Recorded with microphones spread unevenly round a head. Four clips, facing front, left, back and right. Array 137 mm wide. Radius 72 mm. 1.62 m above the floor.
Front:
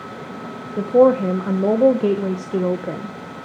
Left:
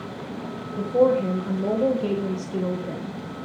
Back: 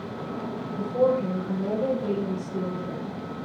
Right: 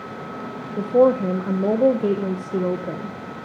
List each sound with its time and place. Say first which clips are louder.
0.8 s a woman speaking: right 3 dB, front 9 dB; 25° right, 1.2 m